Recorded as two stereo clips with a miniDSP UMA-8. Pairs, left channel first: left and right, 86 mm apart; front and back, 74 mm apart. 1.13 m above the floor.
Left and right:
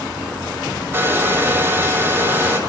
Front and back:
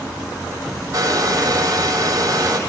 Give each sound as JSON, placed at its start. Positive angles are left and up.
{"t": 0.9, "sound": "a hair dryer", "azimuth_deg": -155, "distance_m": 4.0}